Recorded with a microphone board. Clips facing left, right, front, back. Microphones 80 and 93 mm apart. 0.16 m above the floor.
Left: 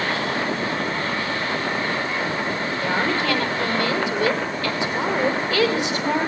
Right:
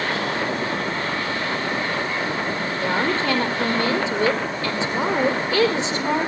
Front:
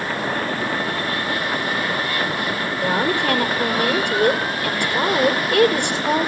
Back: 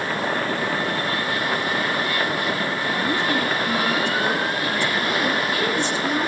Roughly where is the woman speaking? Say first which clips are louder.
Right 1 dB, front 6 dB; ahead.